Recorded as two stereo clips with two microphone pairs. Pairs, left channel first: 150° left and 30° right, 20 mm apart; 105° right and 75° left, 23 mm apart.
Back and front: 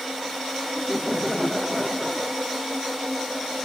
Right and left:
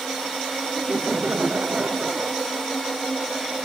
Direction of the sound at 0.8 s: 65° left.